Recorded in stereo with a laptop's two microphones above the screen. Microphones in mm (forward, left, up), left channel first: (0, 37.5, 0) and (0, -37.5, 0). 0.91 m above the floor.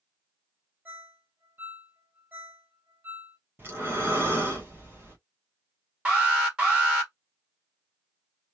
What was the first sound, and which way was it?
A ringtone, 25° right (ahead or behind).